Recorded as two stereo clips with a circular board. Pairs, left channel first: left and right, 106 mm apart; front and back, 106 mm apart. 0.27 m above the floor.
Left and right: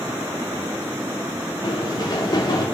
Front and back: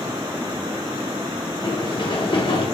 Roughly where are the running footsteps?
Ahead left.